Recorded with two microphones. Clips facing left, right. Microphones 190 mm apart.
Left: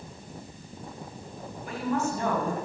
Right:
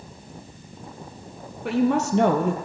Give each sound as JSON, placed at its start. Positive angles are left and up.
{"t": 1.6, "sound": "a woman speaking", "side_deg": -70, "distance_m": 4.5}